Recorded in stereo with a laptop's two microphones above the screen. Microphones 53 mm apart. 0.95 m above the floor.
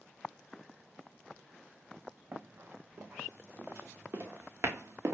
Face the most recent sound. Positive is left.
turn(degrees=-65)  # may be behind; listen again after turning